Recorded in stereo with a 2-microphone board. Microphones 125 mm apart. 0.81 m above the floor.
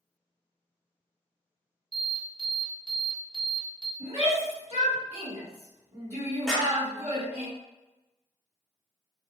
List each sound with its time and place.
1.9 s an alarm: 45° right (ahead or behind), 0.9 m
4.0 s a shout: 55° right (ahead or behind), 1.6 m
6.5 s a clap: centre (ahead or behind), 0.9 m